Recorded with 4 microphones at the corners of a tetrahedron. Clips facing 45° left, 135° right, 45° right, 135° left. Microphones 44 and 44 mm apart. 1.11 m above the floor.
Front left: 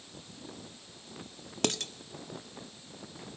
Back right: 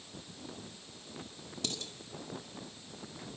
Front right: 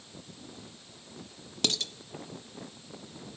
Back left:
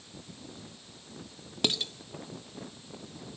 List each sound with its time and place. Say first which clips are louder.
1.6 s dishes clattering: front left 9 dB, back left 1 dB; 60° left, 1.5 m